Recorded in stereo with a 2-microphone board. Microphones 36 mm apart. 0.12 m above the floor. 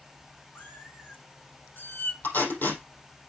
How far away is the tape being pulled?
About 4.5 m.